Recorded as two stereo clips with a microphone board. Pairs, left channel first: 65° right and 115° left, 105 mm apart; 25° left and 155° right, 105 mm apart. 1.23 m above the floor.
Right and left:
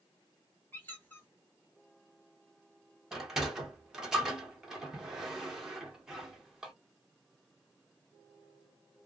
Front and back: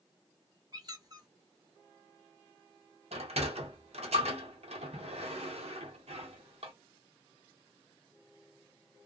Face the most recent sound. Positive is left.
turn(degrees=-160)